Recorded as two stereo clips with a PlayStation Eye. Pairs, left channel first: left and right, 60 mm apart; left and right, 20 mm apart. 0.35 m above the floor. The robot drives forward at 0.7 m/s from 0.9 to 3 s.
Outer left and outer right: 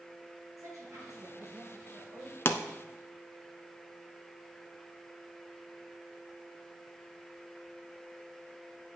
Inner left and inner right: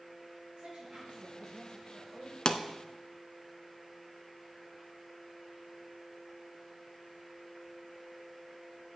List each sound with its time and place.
0.6 s a woman speaking: 65° right (ahead or behind), 5 m; by 2.4 s 60° right (ahead or behind), 5.5 m
2.5 s a pop: 45° left (ahead or behind), 0.7 m; by 2.6 s 40° left (ahead or behind), 0.7 m